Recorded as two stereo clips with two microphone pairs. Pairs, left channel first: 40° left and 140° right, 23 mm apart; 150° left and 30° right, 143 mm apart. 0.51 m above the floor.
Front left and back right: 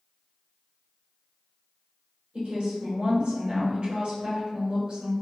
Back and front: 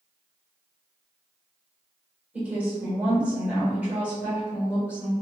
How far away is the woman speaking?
About 1.5 m.